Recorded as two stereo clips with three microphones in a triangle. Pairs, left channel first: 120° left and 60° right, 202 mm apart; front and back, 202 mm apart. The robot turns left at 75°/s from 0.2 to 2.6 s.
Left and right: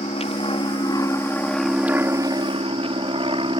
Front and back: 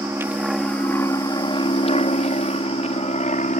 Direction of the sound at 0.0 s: 110° left.